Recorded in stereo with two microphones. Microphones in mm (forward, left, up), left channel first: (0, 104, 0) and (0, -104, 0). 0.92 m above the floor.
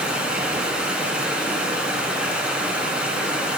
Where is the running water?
5° right (ahead or behind), 1.6 m.